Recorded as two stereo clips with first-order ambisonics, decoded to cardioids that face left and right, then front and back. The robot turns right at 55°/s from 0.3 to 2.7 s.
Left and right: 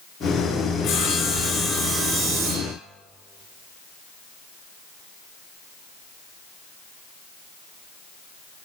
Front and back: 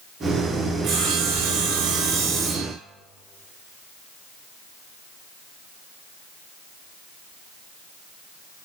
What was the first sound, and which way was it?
Sawing, 140° left.